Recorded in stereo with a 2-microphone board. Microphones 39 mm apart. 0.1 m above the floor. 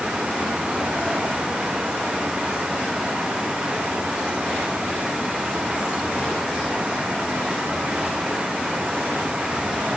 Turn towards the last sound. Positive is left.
No sound to turn to.